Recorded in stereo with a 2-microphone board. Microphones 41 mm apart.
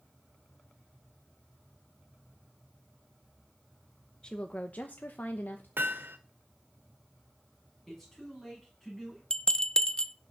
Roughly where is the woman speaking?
Left.